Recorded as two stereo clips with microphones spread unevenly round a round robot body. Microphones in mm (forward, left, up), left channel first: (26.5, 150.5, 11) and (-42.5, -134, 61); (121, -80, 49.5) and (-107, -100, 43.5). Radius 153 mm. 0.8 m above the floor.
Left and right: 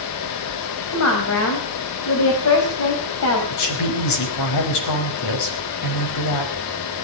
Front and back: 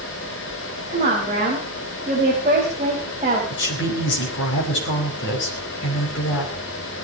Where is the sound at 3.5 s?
55° left, 5.5 m.